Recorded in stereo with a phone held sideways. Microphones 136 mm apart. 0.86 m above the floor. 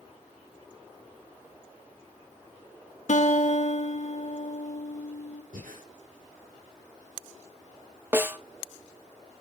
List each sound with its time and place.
3.1 s a guitar: 60° left (ahead or behind), 1.4 m
5.5 s breathing: 80° right, 4 m
8.1 s a snare drum: 15° right (ahead or behind), 0.8 m